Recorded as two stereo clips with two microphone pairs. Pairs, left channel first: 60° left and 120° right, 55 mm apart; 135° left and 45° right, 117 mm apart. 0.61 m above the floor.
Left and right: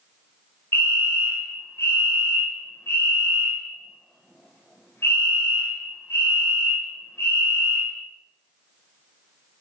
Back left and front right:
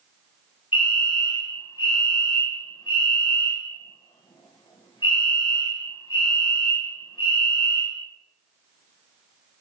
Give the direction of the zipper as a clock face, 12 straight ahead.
No zipper in this recording.